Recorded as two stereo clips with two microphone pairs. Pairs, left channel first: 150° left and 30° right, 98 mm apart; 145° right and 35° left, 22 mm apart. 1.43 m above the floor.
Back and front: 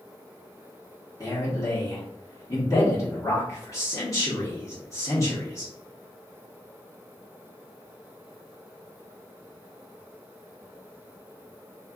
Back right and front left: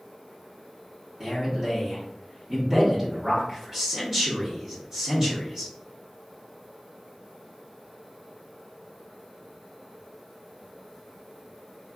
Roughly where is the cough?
No cough in this recording.